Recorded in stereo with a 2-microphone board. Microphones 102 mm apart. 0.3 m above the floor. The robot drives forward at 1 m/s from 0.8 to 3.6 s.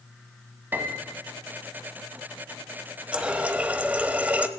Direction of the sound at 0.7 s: 20° right (ahead or behind).